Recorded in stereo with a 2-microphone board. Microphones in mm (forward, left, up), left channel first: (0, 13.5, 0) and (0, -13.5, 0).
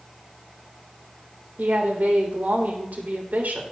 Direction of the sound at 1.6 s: 75° right (ahead or behind).